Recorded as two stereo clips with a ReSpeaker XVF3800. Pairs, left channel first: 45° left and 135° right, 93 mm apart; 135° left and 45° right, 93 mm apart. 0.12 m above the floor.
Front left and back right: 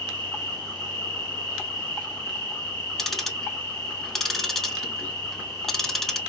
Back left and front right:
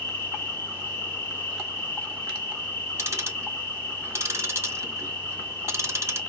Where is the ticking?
35° right, 0.5 m.